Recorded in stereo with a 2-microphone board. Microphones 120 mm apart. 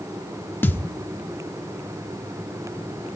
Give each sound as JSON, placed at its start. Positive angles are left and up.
{"t": 0.6, "sound": "a thud", "side_deg": 15, "distance_m": 0.8}